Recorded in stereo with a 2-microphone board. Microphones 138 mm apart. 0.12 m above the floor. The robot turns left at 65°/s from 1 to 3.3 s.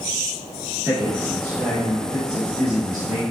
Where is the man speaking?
10° right, 1.9 m; by 3.2 s 155° right, 1.9 m.